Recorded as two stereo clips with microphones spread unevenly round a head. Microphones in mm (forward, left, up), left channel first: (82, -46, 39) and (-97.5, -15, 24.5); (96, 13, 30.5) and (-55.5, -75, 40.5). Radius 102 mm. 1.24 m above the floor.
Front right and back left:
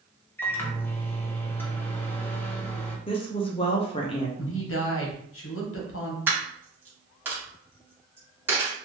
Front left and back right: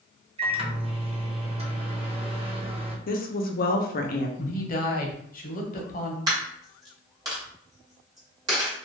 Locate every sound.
0.4 s a microwave: 90° right, 0.7 m
3.1 s a woman speaking: 50° left, 0.6 m
4.4 s a woman speaking: 5° right, 0.8 m
6.3 s a dropped coin: 110° right, 0.8 m